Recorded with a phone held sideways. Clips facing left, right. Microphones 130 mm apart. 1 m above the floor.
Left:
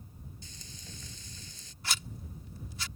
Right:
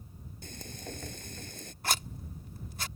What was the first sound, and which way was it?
Frying, 60° right (ahead or behind).